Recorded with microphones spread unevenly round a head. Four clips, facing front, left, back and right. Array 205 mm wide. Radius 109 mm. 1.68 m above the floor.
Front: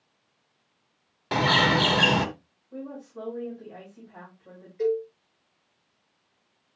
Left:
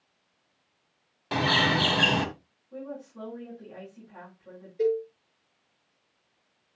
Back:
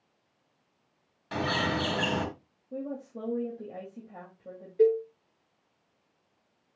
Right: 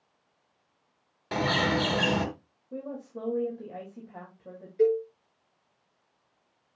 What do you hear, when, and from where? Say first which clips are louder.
1.3 s a bird: left 1 dB, front 7 dB; 5° right, 1.6 m
2.7 s a woman speaking: right 2 dB, back 1 dB; 140° right, 3.5 m
4.8 s a cowbell: right 2 dB, back 3 dB; 160° right, 7 m